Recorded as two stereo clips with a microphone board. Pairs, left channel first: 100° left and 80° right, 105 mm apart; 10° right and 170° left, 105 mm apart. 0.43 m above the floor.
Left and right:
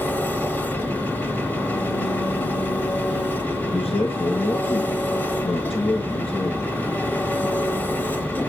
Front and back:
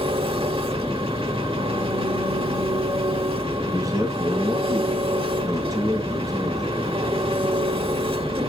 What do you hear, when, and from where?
0.0 s an engine running: 165° left, 1.3 m
3.6 s a man speaking: 115° left, 5.5 m